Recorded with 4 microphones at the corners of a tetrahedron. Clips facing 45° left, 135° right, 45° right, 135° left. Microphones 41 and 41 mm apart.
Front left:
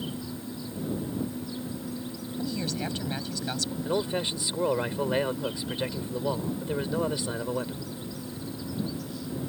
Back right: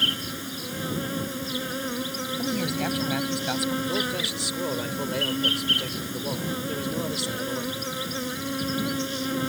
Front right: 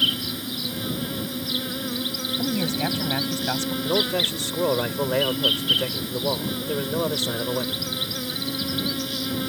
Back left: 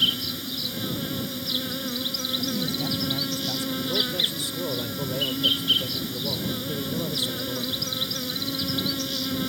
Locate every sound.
0.0 s an insect: 130° right
2.4 s a man speaking: 65° right
3.9 s a man speaking: 25° right